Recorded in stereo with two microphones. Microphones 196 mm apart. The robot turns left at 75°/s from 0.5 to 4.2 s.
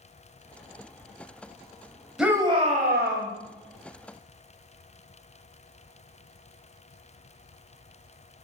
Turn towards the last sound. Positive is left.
turn(degrees=-155)